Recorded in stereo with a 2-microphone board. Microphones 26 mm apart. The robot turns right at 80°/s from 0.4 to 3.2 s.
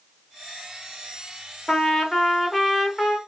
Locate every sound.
1.7 s a trumpet: 20° left (ahead or behind), 0.8 m; by 3.2 s 5° right (ahead or behind), 0.8 m